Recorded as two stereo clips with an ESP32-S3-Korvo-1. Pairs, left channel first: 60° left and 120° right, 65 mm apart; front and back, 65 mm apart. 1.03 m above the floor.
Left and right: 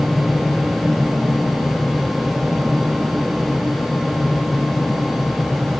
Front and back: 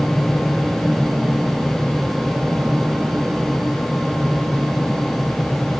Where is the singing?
I don't hear singing.